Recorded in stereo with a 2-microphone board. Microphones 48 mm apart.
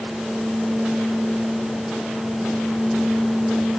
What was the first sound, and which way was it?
Only background noise.